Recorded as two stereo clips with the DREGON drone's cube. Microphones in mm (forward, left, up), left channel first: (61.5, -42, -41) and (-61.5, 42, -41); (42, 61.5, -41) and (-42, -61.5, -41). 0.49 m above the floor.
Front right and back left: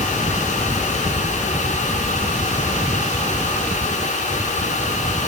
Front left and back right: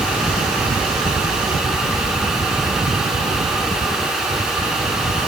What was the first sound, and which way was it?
Only background noise.